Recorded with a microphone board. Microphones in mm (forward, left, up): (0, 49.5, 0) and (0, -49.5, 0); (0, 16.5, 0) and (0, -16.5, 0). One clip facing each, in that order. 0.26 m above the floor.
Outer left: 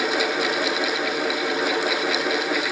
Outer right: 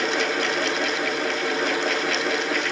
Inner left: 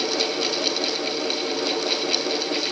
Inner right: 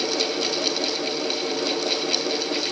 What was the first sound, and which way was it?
Only background noise.